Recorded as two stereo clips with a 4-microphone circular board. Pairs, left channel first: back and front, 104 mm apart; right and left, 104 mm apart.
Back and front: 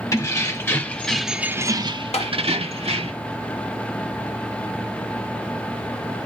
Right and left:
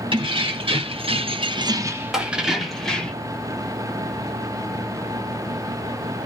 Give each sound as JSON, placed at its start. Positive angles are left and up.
{"t": 0.1, "sound": "keys jangling", "azimuth_deg": 125, "distance_m": 1.2}
{"t": 2.1, "sound": "tapping", "azimuth_deg": 175, "distance_m": 1.1}